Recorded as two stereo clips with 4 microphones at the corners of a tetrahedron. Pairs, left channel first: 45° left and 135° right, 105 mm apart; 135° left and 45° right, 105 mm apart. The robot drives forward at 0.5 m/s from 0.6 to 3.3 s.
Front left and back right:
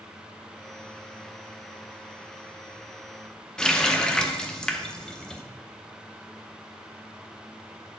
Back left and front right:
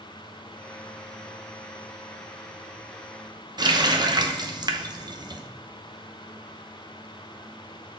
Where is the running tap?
35° right, 0.7 m.